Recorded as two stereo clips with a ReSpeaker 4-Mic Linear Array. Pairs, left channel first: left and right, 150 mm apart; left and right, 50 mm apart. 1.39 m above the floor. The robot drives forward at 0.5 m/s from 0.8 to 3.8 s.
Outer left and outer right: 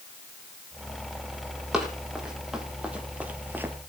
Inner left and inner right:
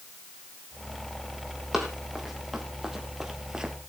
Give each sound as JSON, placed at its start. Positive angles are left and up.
{"t": 1.7, "sound": "running footsteps", "side_deg": -5, "distance_m": 3.5}